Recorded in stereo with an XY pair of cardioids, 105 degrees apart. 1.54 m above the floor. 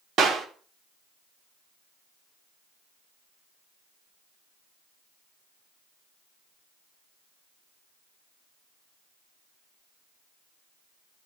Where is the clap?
65° right, 3 m.